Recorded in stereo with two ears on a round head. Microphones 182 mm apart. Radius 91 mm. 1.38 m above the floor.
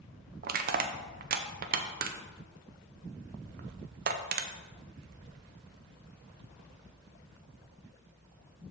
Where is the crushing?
45° right (ahead or behind), 0.6 m.